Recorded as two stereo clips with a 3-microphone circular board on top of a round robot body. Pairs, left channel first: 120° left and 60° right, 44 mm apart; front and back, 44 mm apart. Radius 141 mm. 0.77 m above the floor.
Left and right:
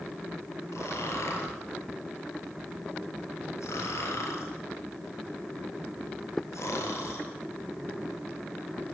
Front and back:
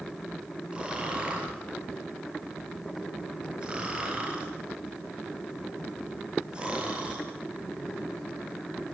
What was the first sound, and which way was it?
Snoring, 110° left.